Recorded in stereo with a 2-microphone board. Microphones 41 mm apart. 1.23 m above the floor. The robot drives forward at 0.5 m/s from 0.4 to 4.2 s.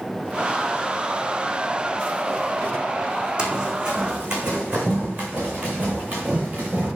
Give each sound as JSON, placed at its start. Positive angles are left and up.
{"t": 3.4, "sound": "running footsteps", "side_deg": -20, "distance_m": 3.0}